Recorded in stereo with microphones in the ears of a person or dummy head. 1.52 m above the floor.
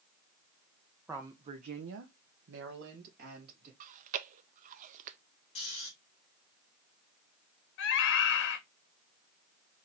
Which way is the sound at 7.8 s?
75° left (ahead or behind).